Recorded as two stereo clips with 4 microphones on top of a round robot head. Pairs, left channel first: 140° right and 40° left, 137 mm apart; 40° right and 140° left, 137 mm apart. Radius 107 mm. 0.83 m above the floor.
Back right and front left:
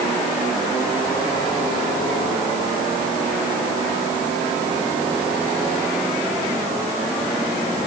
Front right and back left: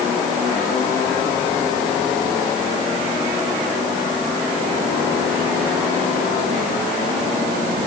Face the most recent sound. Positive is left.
No sound to turn to.